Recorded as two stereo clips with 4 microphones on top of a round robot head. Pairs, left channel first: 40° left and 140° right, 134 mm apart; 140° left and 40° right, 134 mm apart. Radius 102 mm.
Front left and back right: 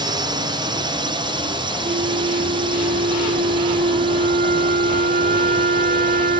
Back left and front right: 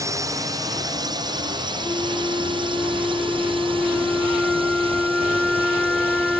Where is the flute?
130° right.